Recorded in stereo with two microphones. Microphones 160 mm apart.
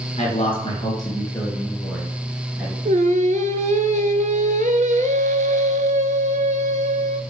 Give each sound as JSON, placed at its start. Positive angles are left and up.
{"t": 0.2, "sound": "a man speaking", "side_deg": 40, "distance_m": 2.5}
{"t": 2.9, "sound": "singing", "side_deg": -55, "distance_m": 0.6}